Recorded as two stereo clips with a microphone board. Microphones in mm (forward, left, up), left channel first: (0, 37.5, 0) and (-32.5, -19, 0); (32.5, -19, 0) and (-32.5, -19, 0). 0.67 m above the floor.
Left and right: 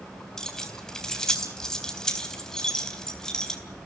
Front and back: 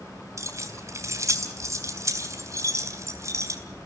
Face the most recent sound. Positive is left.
turn(degrees=140)